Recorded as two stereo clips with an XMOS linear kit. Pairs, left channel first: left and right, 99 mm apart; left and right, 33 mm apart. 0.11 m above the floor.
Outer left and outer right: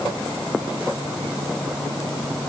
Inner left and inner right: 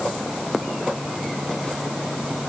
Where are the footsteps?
I don't hear footsteps.